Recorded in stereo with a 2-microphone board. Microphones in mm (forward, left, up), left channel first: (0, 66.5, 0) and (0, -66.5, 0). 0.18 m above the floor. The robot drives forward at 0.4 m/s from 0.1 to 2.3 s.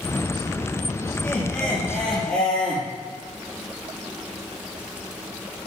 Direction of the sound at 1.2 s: 5° left (ahead or behind).